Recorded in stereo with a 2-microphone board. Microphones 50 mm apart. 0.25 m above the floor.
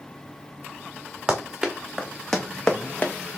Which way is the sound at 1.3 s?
20° right (ahead or behind).